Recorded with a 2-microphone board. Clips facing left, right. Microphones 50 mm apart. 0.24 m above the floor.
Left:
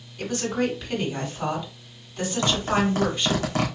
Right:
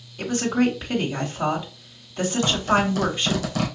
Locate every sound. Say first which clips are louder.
0.2 s a woman speaking: right 4 dB; 25° right (ahead or behind), 1.2 m
2.4 s a zipper: right 1 dB; 40° left (ahead or behind), 2 m